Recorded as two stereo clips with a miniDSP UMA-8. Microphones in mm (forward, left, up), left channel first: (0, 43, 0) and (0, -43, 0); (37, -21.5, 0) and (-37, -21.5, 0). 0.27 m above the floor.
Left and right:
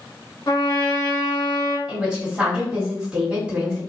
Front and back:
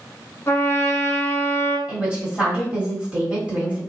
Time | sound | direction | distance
0.5 | a trumpet | 50° left | 0.6 m
1.9 | a woman speaking | 140° right | 1.4 m